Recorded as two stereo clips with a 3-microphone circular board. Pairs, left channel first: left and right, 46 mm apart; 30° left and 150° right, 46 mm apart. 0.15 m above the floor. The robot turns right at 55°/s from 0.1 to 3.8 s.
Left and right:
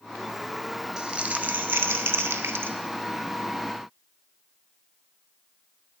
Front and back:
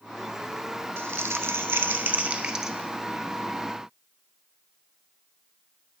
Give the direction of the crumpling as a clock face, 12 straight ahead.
5 o'clock.